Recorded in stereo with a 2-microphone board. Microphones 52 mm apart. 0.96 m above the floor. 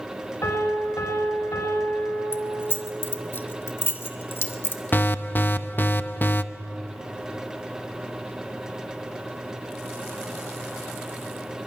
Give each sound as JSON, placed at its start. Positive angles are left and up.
{"t": 0.4, "sound": "a piano", "side_deg": 70, "distance_m": 5.5}
{"t": 2.3, "sound": "keys jangling", "side_deg": 50, "distance_m": 1.7}
{"t": 4.9, "sound": "an alarm", "side_deg": 40, "distance_m": 0.7}